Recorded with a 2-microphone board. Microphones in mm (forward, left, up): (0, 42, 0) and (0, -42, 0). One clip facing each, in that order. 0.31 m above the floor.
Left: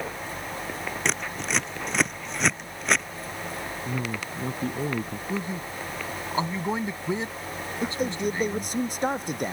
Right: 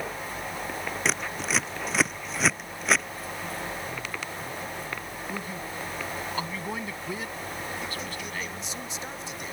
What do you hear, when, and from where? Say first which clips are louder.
1.1 s scissors: even; centre (ahead or behind)
3.9 s a man speaking: left 4 dB; 65° left (ahead or behind)
5.3 s a man speaking: left 3 dB; 25° left (ahead or behind)
7.8 s a man speaking: left 8 dB; 50° left (ahead or behind)